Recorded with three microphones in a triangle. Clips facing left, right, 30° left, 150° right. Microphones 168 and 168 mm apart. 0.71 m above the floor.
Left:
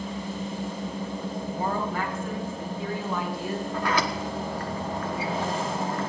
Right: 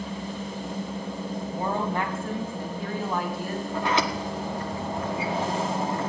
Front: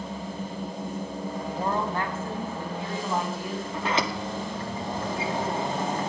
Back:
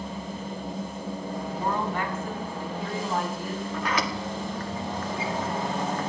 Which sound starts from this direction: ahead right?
A sliding door, at 3.7 s.